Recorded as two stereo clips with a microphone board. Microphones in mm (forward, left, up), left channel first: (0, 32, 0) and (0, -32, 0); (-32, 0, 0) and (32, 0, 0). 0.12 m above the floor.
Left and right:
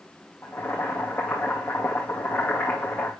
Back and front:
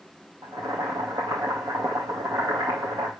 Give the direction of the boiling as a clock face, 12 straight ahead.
11 o'clock.